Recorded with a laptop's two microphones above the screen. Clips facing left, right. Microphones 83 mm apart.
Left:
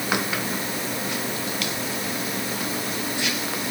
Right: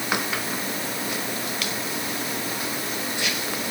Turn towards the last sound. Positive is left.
No sound to turn to.